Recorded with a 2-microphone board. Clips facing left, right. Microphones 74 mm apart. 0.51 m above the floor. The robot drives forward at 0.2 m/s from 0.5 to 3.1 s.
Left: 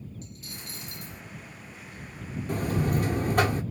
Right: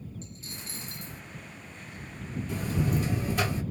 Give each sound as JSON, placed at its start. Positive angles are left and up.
{"t": 0.2, "sound": "a dropped coin", "side_deg": -30, "distance_m": 0.7}
{"t": 2.5, "sound": "a buzzer", "side_deg": 50, "distance_m": 0.5}